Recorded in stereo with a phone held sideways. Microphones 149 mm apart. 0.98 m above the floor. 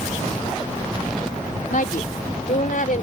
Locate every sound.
1.7 s a woman speaking: 75° left (ahead or behind); by 3.0 s 80° left